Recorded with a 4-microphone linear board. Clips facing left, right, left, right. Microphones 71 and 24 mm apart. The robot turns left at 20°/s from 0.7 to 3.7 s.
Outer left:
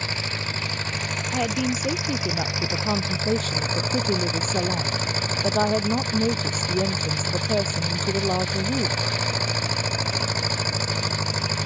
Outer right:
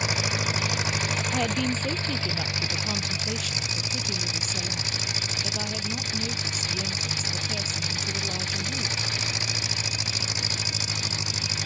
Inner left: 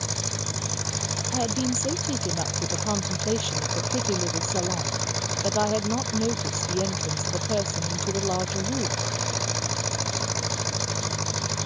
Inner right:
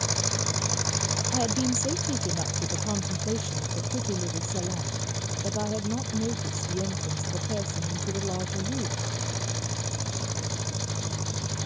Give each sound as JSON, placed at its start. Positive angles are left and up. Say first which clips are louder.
{"t": 0.0, "sound": "an engine running", "louder": "outer right 2 dB, inner right 2 dB", "azimuth_deg": -165}
{"t": 1.3, "sound": "a woman speaking", "louder": "outer left 4 dB, inner left 1 dB", "azimuth_deg": 175}